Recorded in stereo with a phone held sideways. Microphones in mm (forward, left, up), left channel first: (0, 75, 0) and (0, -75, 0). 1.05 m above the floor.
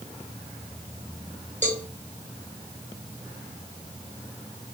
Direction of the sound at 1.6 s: 55° right (ahead or behind).